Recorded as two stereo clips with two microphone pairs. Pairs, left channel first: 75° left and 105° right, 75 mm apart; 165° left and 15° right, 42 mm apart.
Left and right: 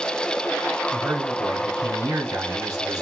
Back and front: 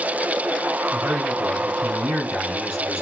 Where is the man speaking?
85° right, 3 m.